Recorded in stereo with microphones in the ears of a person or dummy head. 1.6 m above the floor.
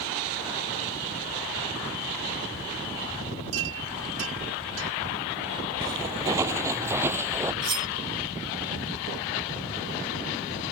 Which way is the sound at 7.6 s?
25° right (ahead or behind).